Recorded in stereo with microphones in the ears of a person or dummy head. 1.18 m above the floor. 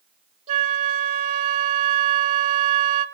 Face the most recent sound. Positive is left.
turn(degrees=-40)  # may be behind; listen again after turning